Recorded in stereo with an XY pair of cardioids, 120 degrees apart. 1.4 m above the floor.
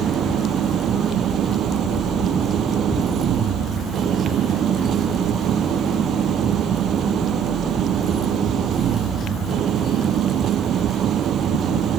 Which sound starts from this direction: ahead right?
An engine running, at 0.0 s.